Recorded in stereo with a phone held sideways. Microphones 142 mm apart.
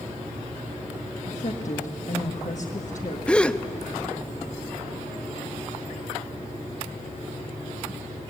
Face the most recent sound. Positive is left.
turn(degrees=5)  # may be behind; listen again after turning